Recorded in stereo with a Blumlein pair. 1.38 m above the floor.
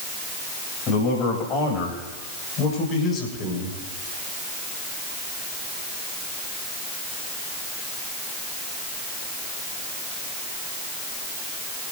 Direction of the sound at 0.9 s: 30° left.